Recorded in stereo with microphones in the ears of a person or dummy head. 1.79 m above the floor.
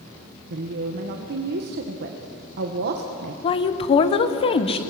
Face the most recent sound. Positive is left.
turn(degrees=35)  # may be behind; listen again after turning